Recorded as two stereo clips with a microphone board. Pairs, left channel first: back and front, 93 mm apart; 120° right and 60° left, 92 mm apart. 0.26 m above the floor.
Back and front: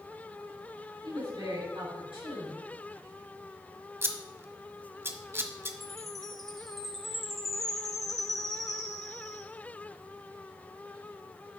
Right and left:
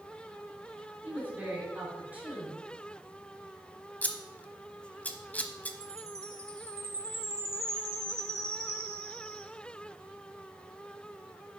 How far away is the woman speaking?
About 4.5 m.